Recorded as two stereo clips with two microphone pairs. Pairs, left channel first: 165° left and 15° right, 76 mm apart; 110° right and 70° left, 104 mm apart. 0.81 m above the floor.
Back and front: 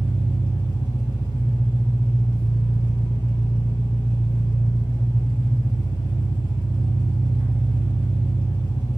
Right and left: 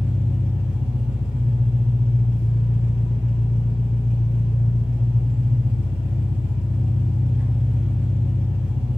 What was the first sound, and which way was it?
An engine running, 10° right.